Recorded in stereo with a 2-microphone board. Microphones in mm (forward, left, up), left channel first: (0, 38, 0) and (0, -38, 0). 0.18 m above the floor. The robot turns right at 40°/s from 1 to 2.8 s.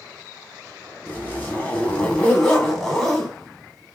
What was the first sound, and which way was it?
A zipper, 25° left (ahead or behind).